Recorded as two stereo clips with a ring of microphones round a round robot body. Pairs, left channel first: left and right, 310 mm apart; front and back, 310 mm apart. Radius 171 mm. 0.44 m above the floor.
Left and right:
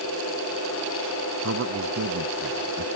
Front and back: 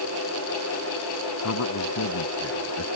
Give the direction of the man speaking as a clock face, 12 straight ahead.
1 o'clock.